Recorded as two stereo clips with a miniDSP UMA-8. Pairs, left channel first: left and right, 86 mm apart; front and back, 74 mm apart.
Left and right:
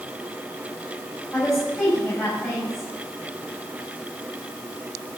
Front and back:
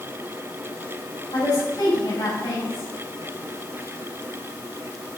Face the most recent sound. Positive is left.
turn(degrees=5)